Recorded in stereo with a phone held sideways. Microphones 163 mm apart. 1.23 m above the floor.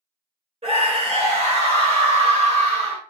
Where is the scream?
40° right (ahead or behind), 1.4 m.